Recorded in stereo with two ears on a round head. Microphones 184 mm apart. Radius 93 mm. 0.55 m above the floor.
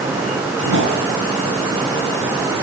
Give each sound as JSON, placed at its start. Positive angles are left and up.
{"t": 0.6, "sound": "a whoosh", "side_deg": -65, "distance_m": 10.0}